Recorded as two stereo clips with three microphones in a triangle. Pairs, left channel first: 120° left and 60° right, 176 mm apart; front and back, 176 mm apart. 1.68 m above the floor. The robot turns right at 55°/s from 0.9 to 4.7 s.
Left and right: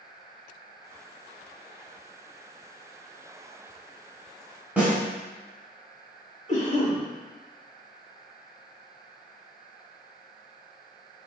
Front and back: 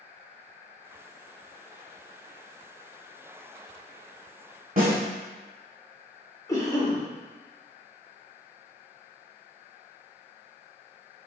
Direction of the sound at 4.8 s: 140° right.